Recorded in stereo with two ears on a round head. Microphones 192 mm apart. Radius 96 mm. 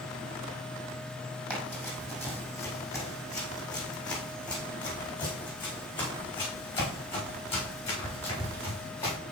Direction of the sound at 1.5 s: 5° left (ahead or behind).